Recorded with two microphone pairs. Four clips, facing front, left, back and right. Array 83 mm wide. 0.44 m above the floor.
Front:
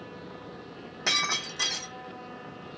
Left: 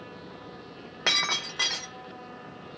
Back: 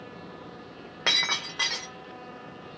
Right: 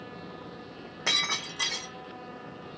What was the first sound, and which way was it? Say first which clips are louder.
Breaking glass: left 3 dB, back 1 dB; 135° left.